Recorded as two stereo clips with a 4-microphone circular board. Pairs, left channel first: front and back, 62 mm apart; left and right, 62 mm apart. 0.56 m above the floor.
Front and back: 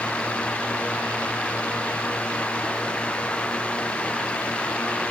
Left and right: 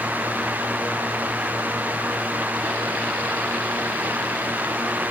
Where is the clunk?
No clunk in this recording.